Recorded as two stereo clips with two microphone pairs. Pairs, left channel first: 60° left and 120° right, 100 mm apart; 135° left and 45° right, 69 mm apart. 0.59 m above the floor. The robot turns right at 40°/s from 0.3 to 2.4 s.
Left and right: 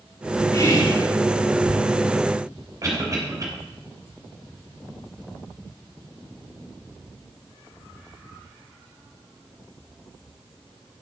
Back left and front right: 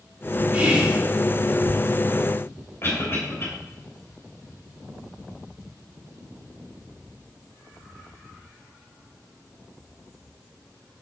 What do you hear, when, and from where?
0.5 s whispering: 20° left, 1.4 m; by 1.0 s 40° left, 1.4 m
2.8 s a cough: 175° right, 3 m